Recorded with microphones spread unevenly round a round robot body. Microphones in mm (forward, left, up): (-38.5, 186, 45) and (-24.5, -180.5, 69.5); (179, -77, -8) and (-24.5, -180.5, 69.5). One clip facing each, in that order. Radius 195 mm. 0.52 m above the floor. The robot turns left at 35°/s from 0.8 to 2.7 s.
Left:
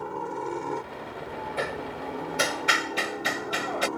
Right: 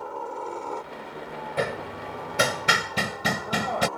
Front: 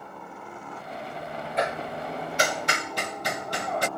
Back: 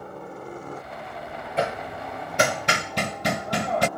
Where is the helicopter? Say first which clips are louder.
Left 2 dB, back 6 dB; 140° left; by 4.0 s 115° left.